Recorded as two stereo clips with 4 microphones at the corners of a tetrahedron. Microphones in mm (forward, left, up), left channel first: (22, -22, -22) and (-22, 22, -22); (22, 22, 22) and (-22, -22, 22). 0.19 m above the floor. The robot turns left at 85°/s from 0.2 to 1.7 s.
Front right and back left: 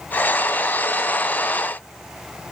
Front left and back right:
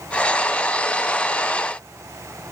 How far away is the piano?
No piano in this recording.